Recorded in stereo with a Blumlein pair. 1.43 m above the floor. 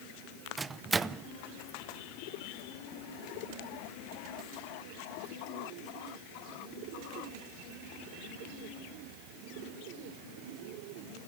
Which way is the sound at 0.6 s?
10° right.